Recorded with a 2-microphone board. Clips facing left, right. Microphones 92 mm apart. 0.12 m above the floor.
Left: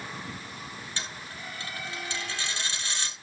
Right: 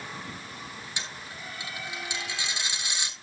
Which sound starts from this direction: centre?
A dropped coin, at 1.0 s.